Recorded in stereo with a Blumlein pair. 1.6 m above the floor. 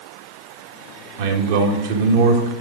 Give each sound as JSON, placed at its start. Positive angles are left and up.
{"t": 1.2, "sound": "a man speaking", "azimuth_deg": -50, "distance_m": 1.8}